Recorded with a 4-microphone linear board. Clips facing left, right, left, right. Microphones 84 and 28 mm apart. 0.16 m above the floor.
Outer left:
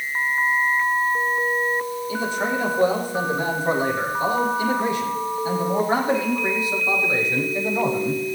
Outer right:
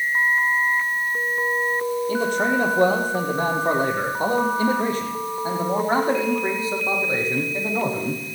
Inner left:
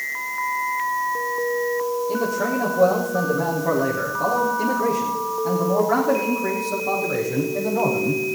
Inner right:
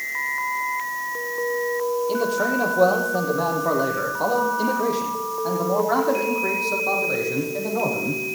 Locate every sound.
2.1 s a man speaking: 55° right (ahead or behind), 4.5 m; by 8.2 s 25° right (ahead or behind), 6 m